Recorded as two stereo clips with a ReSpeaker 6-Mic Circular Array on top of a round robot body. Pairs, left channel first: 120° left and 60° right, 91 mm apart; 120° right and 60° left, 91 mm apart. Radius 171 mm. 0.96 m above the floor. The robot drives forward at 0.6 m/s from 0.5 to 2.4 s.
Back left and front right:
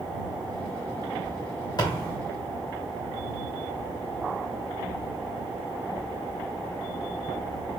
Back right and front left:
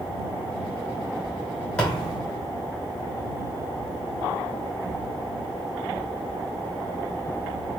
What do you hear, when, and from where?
1.8 s a thud: 160° left, 2.5 m; by 2.2 s 165° left, 2.5 m